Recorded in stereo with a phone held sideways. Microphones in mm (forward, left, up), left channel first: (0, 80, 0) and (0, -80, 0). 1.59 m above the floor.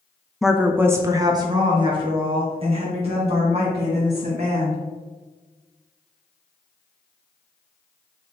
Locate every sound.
0.4 s a woman speaking: centre (ahead or behind), 0.5 m; by 4.8 s 45° right (ahead or behind), 2.5 m